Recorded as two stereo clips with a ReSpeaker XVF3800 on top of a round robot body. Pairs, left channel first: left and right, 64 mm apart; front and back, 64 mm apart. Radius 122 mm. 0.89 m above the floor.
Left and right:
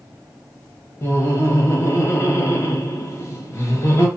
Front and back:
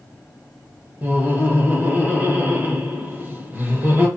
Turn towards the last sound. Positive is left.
turn(degrees=125)